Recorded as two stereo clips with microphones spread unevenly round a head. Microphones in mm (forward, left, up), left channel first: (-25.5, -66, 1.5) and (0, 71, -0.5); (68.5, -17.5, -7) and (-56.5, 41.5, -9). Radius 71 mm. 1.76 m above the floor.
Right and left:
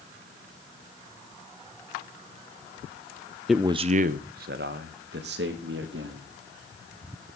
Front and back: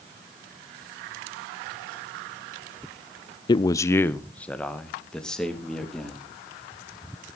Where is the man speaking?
15° right, 0.5 m; by 6.3 s 60° left, 4 m.